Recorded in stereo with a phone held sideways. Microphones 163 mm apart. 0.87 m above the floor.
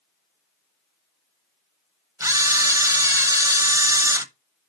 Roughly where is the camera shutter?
Centre.